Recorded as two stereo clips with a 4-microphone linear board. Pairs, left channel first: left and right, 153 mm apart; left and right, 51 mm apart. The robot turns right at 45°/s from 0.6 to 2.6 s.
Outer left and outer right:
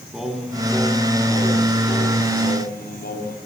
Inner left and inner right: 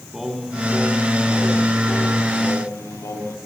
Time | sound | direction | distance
0.1 | singing | 5° right | 4 m